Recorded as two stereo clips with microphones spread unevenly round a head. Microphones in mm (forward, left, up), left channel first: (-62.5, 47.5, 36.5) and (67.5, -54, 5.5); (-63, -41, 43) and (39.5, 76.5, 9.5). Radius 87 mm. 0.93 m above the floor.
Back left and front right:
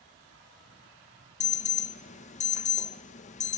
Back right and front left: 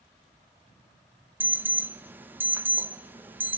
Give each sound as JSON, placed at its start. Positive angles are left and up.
{"t": 1.4, "sound": "an alarm", "azimuth_deg": 105, "distance_m": 1.4}